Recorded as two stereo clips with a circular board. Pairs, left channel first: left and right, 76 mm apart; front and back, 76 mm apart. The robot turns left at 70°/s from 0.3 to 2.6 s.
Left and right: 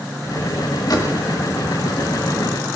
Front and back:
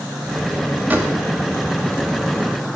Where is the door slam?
115° left, 1.8 m; by 1.2 s 100° left, 1.8 m.